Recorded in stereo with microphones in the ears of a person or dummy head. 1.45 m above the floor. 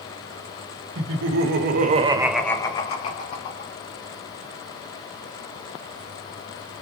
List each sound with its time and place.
0.9 s laughter: 80° right, 1.1 m; by 3.7 s 50° left (ahead or behind), 1.3 m